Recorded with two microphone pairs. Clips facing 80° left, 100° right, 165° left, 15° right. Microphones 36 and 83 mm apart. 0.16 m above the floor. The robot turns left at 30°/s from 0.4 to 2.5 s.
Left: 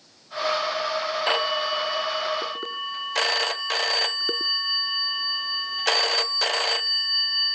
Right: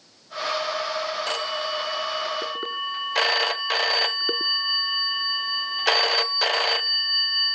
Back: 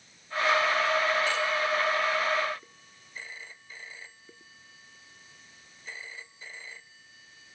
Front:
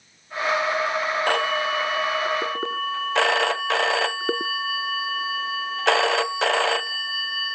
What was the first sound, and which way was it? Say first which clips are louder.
A phone ringing: left 4 dB, front 5 dB; 20° left.